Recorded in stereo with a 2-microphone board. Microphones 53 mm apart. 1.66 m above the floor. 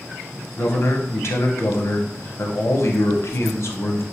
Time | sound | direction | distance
0.6 | a man speaking | 50° left (ahead or behind) | 0.7 m